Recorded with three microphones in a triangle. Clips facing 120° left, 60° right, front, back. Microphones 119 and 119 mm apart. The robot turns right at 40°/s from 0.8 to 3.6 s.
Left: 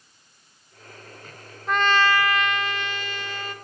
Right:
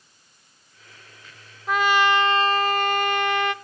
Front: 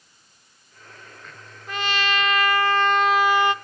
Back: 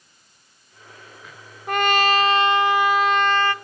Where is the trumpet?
145° right, 0.8 m; by 3.5 s 70° right, 0.8 m.